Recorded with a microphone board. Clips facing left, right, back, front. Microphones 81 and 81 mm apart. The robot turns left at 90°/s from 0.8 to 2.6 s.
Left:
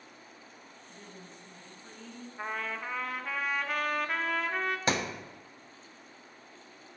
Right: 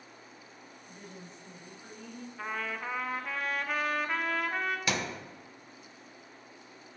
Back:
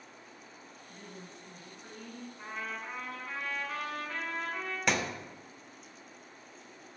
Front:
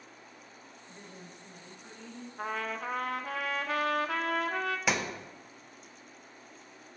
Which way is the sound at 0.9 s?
35° right.